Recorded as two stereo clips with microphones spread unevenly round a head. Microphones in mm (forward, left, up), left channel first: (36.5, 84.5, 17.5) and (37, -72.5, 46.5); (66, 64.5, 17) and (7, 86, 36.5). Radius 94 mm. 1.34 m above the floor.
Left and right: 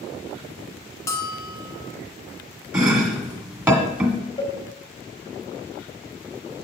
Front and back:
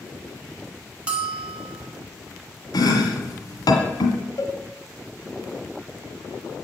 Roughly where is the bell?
Behind.